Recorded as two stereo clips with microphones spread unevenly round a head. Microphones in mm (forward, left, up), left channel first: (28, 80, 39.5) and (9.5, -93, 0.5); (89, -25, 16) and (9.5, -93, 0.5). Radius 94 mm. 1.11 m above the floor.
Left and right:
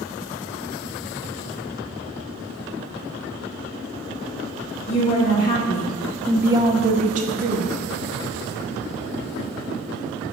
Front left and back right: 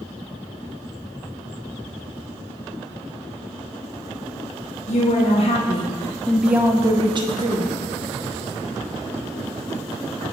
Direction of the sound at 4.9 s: 45° left.